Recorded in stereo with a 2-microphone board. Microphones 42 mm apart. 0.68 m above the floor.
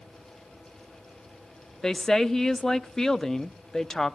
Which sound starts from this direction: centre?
A woman speaking, at 1.8 s.